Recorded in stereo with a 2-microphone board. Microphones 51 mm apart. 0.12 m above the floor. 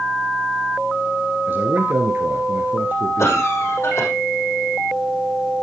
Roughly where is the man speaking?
Right.